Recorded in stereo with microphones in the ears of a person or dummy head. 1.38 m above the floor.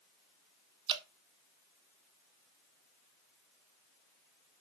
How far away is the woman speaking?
No woman speaking in this recording.